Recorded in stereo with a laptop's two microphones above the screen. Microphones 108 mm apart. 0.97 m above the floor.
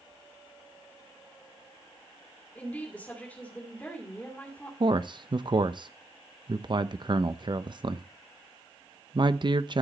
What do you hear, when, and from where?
2.5 s a woman speaking: 15° left (ahead or behind), 2.5 m
4.8 s a man speaking: 45° right (ahead or behind), 0.7 m